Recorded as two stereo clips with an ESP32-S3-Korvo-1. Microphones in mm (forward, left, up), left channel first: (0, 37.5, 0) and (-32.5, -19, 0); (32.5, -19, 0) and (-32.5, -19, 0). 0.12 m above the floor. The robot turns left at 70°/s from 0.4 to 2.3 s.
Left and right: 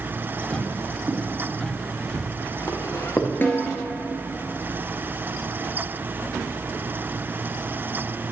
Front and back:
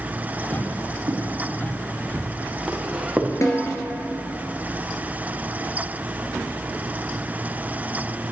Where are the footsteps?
160° right, 3.5 m; by 3.3 s 110° left, 1.8 m.